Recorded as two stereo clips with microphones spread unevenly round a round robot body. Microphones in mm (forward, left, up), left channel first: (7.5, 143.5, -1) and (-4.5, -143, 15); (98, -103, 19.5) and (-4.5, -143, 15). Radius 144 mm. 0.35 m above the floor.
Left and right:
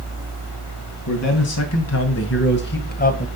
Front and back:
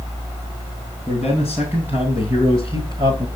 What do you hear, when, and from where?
1.1 s a man speaking: 115° left, 2.5 m; by 3.3 s 145° left, 1.5 m